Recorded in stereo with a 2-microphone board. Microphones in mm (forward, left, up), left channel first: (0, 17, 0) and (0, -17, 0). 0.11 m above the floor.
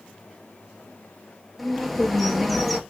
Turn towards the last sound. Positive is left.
turn(degrees=5)  # may be behind; listen again after turning